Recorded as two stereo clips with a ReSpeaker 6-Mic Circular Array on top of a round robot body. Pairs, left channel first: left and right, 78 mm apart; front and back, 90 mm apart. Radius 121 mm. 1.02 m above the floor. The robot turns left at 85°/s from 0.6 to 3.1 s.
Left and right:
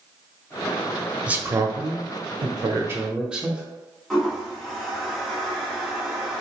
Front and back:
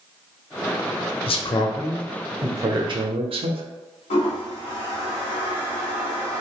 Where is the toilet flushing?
5° left, 0.8 m.